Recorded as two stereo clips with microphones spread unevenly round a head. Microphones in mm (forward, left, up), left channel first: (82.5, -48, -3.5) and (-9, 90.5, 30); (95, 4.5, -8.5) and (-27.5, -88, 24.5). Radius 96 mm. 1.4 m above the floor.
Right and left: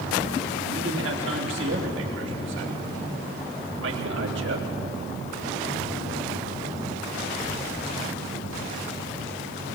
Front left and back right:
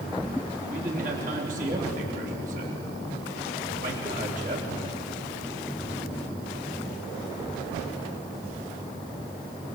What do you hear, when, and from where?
0.7 s a man speaking: 160° left, 3.5 m